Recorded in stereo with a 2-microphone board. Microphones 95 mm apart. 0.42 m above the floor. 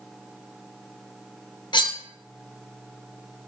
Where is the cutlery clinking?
50° left (ahead or behind), 0.5 m.